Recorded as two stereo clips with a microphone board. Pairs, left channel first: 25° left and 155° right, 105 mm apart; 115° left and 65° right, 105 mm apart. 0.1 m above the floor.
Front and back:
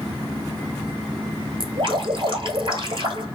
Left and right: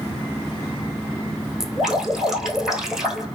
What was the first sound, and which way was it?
Dripping, 155° right.